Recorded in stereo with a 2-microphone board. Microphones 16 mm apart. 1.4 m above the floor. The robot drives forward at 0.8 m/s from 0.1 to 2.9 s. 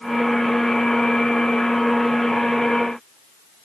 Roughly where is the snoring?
I don't hear snoring.